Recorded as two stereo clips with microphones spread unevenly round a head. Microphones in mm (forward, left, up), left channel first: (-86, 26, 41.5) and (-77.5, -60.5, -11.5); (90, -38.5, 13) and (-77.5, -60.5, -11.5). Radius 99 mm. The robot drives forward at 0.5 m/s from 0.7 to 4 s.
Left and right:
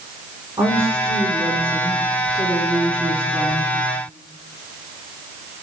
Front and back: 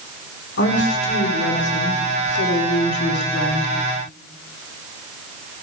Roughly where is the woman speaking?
Ahead.